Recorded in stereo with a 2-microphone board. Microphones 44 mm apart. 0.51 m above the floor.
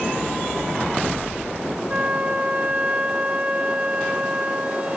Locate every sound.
1.9 s a flute: 30° right (ahead or behind), 2.5 m